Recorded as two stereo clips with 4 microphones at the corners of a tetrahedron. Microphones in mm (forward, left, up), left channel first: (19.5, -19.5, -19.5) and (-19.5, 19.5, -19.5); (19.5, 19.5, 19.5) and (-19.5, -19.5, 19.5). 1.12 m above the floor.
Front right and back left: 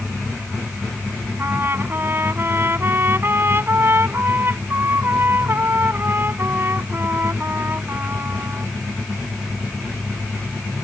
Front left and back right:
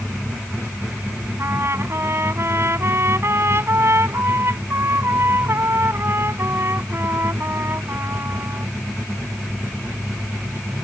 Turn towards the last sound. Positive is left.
turn(degrees=-175)